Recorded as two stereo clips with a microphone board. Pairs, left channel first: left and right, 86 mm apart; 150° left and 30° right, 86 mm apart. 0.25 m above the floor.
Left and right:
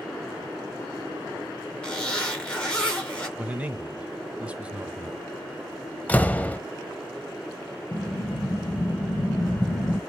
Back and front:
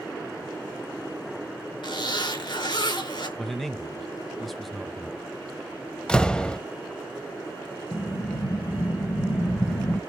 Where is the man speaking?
125° right, 0.9 m.